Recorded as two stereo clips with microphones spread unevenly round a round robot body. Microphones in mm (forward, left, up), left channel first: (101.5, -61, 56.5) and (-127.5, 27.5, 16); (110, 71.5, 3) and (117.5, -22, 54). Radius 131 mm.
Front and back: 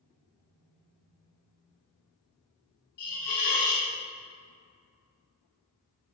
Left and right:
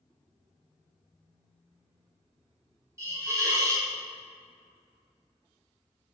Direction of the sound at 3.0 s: 10° right.